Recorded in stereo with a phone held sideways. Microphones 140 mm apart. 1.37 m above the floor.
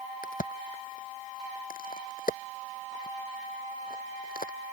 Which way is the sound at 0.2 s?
80° left.